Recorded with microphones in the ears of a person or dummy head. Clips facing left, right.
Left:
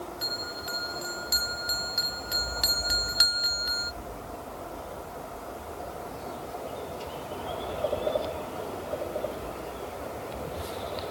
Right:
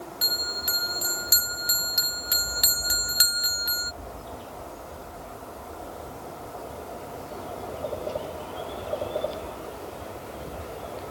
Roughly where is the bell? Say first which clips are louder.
Even; right.